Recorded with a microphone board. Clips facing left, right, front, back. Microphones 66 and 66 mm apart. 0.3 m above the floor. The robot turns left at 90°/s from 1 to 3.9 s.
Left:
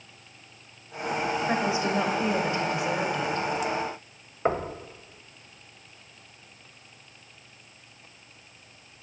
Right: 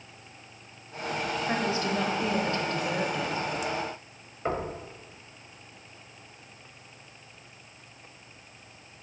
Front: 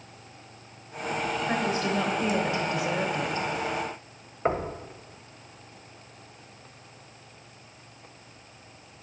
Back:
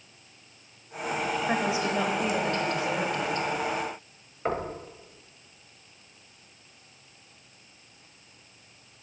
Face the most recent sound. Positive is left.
turn(degrees=55)